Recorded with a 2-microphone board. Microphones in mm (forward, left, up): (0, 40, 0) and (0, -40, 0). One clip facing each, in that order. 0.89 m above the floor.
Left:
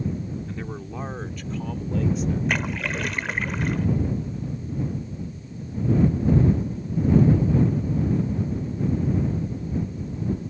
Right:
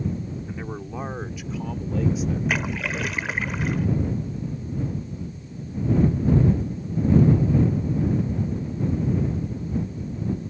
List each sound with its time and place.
0.5 s a man speaking: 15° right (ahead or behind); by 2.4 s 5° right (ahead or behind)
2.5 s a splash: centre (ahead or behind)